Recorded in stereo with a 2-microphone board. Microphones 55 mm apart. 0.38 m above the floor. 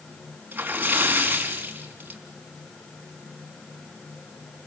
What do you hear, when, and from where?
0.5 s a splash: 35° right (ahead or behind), 4 m